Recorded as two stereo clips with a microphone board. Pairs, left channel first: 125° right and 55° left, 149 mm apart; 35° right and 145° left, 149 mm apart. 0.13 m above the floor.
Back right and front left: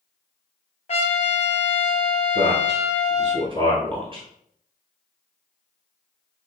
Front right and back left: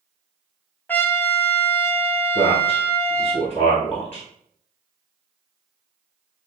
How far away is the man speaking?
About 1.3 m.